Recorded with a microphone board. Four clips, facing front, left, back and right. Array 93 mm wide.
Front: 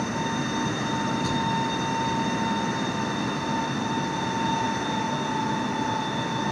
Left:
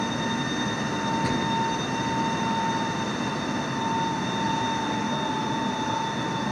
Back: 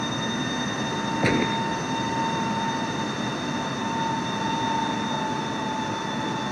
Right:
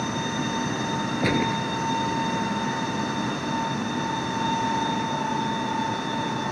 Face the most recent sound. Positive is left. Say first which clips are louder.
# right 1 dB, back 2 dB
turn(degrees=-145)